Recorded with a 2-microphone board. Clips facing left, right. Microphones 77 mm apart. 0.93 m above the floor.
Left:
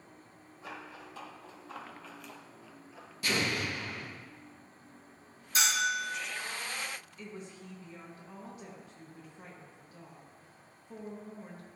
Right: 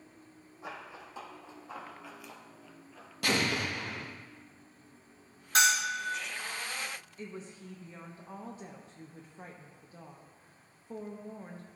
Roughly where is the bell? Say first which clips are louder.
Right 3 dB; right.